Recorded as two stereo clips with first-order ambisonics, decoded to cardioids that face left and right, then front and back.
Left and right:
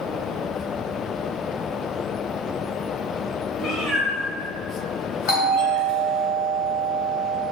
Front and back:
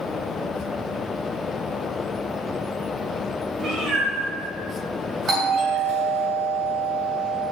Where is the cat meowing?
120° left, 1.7 m; by 6.3 s 50° left, 2 m.